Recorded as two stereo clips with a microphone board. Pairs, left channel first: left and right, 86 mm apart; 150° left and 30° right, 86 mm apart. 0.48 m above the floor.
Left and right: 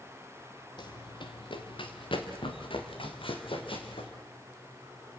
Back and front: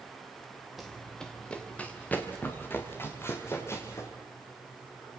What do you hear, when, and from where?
0.8 s running footsteps: 60° left, 2.5 m; by 4.1 s 95° left, 6 m